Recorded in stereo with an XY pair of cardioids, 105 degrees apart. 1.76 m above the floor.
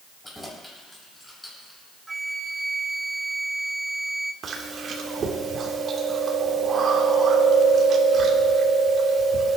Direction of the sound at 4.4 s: 55° right.